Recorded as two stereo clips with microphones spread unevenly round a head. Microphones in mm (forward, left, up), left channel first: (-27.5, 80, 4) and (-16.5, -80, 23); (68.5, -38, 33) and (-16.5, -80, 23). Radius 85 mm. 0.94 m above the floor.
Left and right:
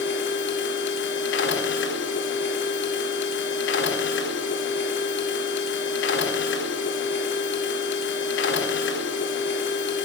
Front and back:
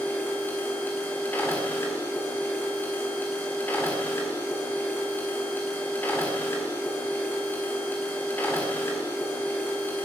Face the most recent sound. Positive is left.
turn(degrees=105)